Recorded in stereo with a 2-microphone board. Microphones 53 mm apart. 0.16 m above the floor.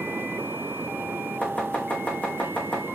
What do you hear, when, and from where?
1.4 s chopping: 25° left (ahead or behind), 3 m